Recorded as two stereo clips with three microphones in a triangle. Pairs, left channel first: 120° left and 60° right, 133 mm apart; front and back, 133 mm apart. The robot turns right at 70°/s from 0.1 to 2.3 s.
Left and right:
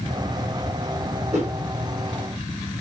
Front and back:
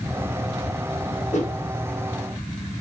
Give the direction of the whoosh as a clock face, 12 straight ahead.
1 o'clock.